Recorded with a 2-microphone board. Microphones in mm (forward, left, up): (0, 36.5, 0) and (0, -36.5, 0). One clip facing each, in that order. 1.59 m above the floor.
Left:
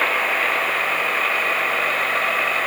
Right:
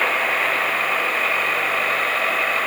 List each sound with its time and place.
Only background noise.